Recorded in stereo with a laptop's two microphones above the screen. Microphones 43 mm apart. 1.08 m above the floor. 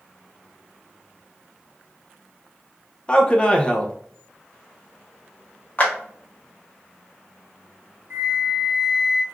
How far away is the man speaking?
About 0.6 m.